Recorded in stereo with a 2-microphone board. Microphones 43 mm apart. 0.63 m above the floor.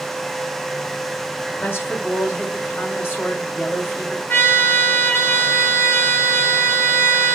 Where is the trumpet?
60° left (ahead or behind), 5 m.